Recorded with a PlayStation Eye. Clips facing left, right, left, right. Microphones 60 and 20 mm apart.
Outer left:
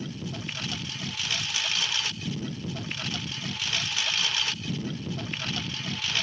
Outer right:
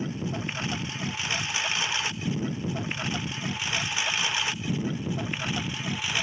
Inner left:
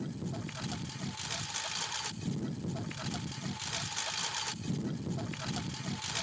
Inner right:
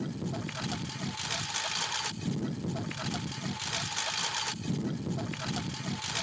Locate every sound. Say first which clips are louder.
0.0 s a lawn mower: outer right 4 dB, inner right 4 dB; 20° right (ahead or behind); by 6.2 s 15° right (ahead or behind)